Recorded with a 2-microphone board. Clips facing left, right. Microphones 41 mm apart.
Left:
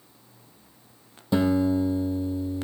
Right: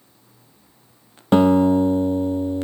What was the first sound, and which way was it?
A guitar, 60° right (ahead or behind).